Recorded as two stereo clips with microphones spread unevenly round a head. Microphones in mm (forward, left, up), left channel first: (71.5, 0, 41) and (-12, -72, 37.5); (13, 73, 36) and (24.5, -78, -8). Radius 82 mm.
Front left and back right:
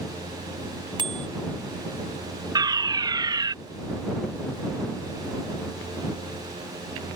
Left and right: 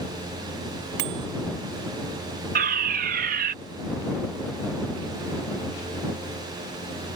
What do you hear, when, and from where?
1.0 s a bicycle bell: 95° right
2.5 s a fire alarm: 90° right